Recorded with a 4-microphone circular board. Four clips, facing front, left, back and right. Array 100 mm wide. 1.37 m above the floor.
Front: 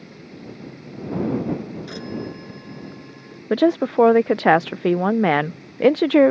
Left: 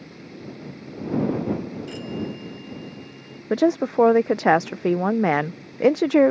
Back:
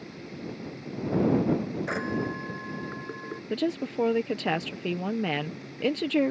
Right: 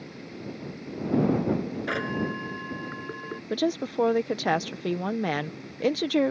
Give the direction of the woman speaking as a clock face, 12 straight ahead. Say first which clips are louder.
Left 8 dB, front 12 dB; 11 o'clock.